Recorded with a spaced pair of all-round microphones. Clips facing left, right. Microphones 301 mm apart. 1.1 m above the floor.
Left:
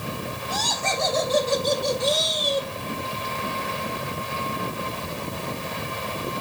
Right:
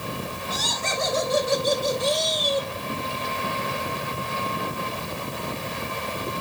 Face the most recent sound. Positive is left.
turn(degrees=20)  # may be behind; listen again after turning